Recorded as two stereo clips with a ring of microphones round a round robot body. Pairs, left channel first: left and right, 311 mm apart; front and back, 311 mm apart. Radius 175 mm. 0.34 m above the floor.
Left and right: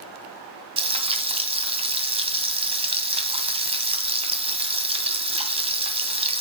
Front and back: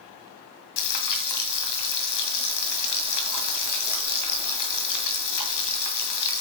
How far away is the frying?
About 2.0 m.